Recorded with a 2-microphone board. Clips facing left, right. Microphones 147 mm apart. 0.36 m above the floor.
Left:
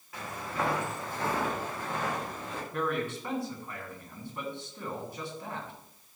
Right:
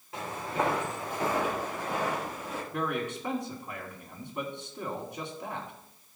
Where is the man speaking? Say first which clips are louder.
Left 1 dB; 20° right (ahead or behind), 2.5 m.